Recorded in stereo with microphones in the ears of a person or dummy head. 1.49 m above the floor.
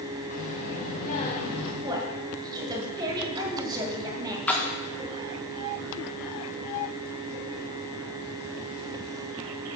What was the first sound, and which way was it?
A child speaking, 55° left (ahead or behind).